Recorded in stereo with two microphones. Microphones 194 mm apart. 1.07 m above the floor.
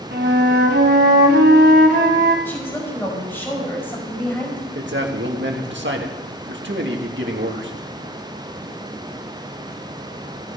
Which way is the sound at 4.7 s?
65° right (ahead or behind).